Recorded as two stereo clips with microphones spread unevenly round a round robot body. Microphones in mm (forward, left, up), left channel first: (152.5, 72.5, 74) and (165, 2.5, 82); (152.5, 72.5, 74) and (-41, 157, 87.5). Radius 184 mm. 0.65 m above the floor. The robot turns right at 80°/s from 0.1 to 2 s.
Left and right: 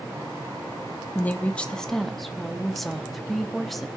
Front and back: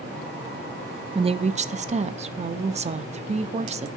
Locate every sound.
1.1 s a woman speaking: 105° left, 0.5 m; by 3.9 s 170° left, 0.5 m